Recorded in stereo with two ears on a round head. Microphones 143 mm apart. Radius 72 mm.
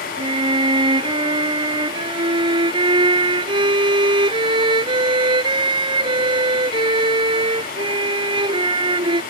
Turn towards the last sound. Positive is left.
turn(degrees=-30)  # may be behind; listen again after turning